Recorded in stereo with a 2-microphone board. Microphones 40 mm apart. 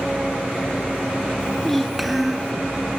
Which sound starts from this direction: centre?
A child speaking, at 1.4 s.